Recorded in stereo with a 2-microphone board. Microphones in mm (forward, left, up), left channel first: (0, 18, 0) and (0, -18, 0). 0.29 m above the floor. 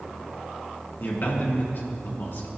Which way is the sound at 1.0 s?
70° left (ahead or behind).